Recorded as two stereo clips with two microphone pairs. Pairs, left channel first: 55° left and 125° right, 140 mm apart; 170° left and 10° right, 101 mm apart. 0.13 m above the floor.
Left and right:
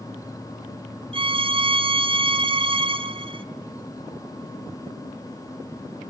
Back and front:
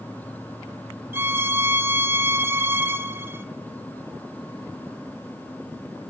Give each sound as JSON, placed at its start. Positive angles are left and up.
{"t": 1.1, "sound": "a violin", "azimuth_deg": -75, "distance_m": 1.0}